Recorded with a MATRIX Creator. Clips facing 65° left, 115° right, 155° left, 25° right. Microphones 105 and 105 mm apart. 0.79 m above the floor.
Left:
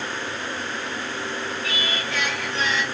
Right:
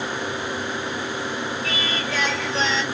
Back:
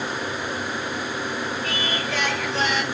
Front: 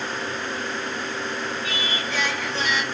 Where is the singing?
170° right, 1.7 m.